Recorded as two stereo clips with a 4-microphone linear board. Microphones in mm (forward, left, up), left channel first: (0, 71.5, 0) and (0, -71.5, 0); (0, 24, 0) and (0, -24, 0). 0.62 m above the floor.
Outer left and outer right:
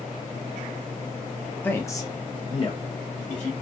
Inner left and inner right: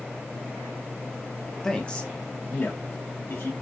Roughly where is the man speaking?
Centre.